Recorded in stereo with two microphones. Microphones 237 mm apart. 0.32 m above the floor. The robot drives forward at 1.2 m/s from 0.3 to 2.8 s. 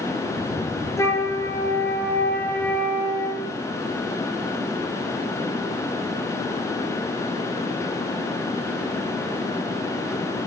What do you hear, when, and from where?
1.0 s a flute: 10° left (ahead or behind), 4 m